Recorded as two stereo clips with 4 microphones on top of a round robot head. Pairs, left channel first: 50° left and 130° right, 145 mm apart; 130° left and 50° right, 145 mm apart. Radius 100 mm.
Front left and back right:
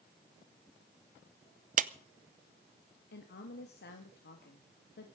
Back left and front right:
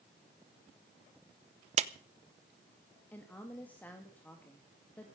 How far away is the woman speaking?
About 2 m.